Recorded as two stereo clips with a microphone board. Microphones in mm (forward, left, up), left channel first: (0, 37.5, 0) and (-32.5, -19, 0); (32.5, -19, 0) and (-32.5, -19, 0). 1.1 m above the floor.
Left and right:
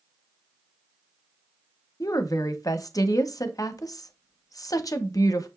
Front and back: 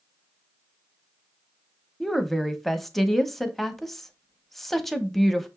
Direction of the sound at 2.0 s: 85° left.